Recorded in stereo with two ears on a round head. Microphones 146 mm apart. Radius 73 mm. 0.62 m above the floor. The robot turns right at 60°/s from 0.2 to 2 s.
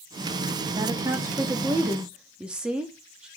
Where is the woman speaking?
25° right (ahead or behind), 0.9 m; by 3.3 s 5° right (ahead or behind), 0.9 m.